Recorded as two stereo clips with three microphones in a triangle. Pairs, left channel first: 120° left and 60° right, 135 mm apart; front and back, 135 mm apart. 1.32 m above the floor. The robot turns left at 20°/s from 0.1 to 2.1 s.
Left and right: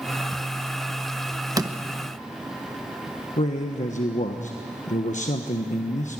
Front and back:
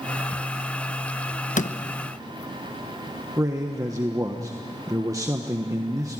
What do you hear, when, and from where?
1.6 s a door slam: straight ahead, 0.9 m; by 1.8 s 5° right, 0.9 m
3.4 s a man speaking: 115° left, 1.3 m